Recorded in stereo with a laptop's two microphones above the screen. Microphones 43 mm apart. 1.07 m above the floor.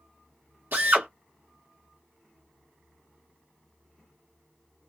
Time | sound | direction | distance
0.7 | a drill | 60° right (ahead or behind) | 1.3 m